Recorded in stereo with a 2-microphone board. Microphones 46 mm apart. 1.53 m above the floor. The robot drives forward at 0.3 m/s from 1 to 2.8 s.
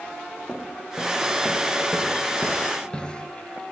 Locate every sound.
0.5 s footsteps: 10° left (ahead or behind), 3 m; by 3.3 s 20° left (ahead or behind), 1.9 m